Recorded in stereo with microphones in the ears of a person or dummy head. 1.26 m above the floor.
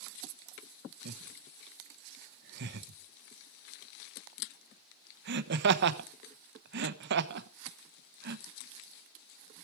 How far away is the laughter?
About 1.3 m.